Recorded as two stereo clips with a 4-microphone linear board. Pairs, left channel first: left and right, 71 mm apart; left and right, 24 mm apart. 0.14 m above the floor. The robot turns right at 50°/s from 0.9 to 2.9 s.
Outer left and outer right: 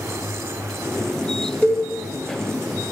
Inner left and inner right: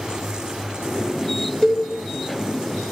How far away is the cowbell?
About 0.8 m.